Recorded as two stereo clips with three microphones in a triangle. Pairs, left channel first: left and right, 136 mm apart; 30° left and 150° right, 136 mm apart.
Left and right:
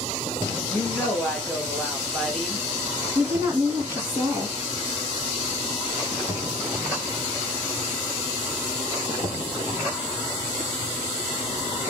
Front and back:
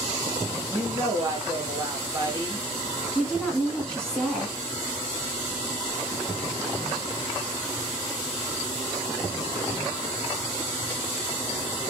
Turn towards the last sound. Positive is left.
turn(degrees=-50)